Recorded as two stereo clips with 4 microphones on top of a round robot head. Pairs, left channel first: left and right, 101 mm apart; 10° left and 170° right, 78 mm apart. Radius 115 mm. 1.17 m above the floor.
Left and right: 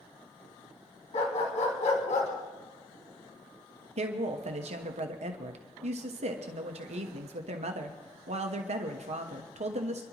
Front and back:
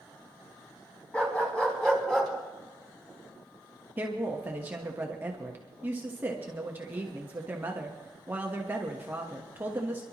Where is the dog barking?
80° left, 3 m; by 2.3 s 95° left, 3 m.